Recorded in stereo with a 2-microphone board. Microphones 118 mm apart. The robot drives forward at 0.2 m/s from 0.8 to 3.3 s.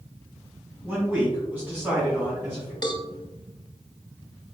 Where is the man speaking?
15° right (ahead or behind), 1.9 m.